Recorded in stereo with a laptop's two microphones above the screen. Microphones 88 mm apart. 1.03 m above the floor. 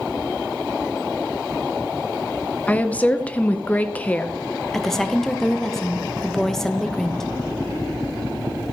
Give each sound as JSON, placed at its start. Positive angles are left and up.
{"t": 2.7, "sound": "a woman speaking", "side_deg": 15, "distance_m": 0.7}
{"t": 4.7, "sound": "a woman speaking", "side_deg": 5, "distance_m": 0.7}